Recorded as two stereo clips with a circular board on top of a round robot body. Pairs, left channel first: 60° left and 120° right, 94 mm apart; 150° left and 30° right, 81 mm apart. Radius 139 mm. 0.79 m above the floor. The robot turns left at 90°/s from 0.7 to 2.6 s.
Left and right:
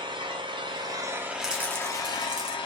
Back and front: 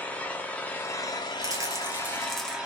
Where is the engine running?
140° right, 0.7 m; by 2.7 s 50° left, 0.7 m.